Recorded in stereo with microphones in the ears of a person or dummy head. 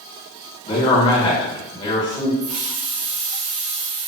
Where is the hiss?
45° right (ahead or behind), 1.4 m.